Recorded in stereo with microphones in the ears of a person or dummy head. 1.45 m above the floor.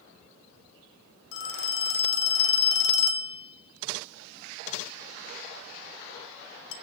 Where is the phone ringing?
60° left (ahead or behind), 1.4 m.